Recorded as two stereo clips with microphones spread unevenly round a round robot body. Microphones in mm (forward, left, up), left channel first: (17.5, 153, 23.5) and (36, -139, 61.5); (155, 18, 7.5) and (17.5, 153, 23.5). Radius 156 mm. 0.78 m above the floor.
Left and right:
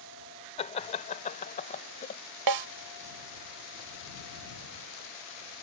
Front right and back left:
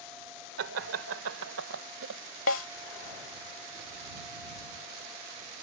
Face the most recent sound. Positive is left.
turn(degrees=-80)